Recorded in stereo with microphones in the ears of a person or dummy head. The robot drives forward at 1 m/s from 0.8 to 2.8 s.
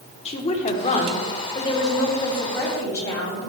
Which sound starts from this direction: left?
A woman speaking, at 0.2 s.